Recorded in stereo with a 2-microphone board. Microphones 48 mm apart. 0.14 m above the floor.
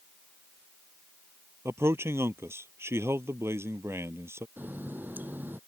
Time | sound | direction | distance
1.6 | a man speaking | 60° right (ahead or behind) | ?
4.6 | a running tap | 40° right (ahead or behind) | ?